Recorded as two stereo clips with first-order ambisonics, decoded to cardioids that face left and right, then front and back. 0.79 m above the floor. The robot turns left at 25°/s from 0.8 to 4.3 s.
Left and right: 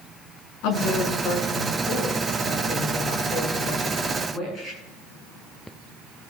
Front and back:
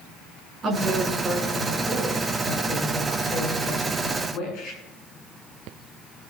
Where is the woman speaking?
115° left, 8.5 m; by 4.8 s 30° left, 8.5 m.